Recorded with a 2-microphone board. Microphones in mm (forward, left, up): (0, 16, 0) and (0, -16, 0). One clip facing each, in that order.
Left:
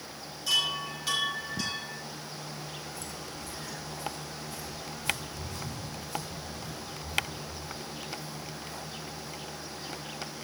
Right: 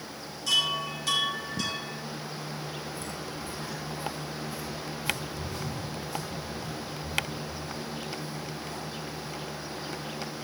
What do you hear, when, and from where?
0.5 s a chime: 5° left (ahead or behind), 4.5 m
2.9 s footsteps: 35° right (ahead or behind), 3.5 m; by 9.3 s 15° left (ahead or behind), 6.5 m